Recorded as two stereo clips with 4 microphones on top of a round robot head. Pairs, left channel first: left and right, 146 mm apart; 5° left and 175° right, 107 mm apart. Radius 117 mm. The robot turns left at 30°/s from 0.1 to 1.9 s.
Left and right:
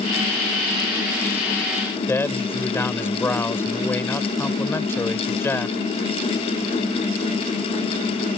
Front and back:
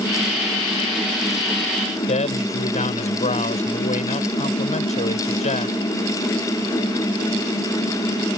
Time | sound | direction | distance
2.1 | a man speaking | 15° left | ?